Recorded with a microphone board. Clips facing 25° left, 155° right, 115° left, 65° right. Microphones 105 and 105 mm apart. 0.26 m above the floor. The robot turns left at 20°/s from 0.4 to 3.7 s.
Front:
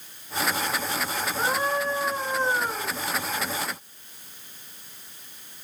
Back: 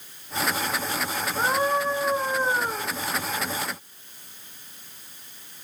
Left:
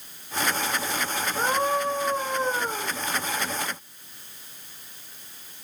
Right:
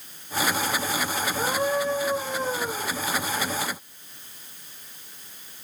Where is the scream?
145° left, 3 m; by 2.9 s 115° left, 3 m.